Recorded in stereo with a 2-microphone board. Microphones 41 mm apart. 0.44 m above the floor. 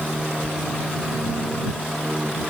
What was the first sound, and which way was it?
A sliding door, 50° left (ahead or behind).